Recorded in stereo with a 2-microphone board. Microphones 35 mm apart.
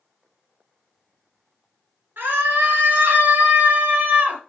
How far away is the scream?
About 3.5 m.